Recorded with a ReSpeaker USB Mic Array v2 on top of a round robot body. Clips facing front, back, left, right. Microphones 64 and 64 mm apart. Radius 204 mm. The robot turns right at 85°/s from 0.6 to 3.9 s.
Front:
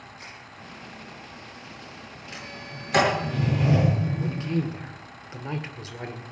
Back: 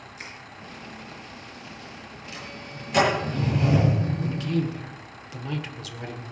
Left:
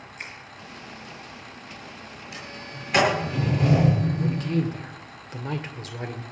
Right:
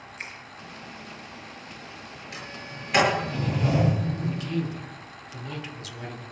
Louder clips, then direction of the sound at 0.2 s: Back 5 dB, even; straight behind.